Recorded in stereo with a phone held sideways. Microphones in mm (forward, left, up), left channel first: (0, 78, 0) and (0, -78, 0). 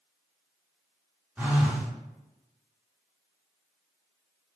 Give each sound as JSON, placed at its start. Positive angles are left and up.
{"t": 1.4, "sound": "a phone buzzing", "side_deg": -10, "distance_m": 0.7}